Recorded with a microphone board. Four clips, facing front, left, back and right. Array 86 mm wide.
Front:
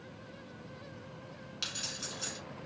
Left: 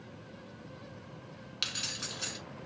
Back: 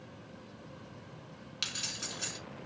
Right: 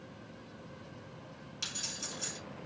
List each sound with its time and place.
1.6 s keys jangling: 110° left, 1.1 m